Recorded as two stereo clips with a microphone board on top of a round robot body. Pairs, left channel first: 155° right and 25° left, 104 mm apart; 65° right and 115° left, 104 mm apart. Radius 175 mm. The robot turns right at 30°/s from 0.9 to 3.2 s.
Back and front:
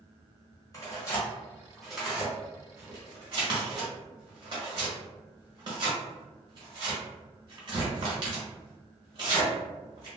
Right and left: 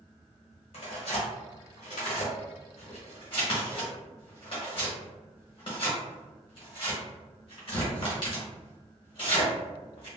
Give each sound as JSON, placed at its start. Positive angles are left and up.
{"t": 0.7, "sound": "tearing paper", "azimuth_deg": -95, "distance_m": 1.0}